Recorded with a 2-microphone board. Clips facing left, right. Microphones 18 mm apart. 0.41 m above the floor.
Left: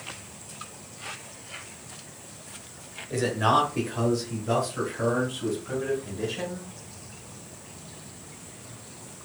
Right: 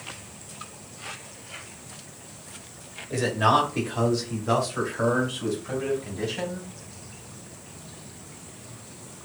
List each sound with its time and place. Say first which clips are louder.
3.1 s a man speaking: right 1 dB; 10° right (ahead or behind), 1.5 m; by 6.7 s 50° right (ahead or behind), 3 m